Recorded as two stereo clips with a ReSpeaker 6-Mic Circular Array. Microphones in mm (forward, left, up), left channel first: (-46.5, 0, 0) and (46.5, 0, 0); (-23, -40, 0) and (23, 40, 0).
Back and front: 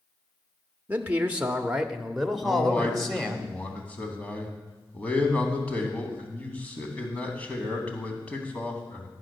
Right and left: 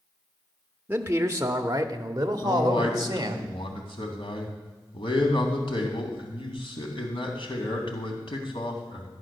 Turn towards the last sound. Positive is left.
turn(degrees=-105)